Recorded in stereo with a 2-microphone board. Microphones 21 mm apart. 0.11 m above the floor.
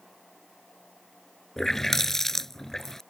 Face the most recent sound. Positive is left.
turn(degrees=20)  # may be behind; listen again after turning